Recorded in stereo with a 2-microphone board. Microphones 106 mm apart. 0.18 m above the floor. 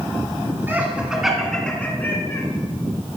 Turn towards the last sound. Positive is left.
turn(degrees=30)  # may be behind; listen again after turning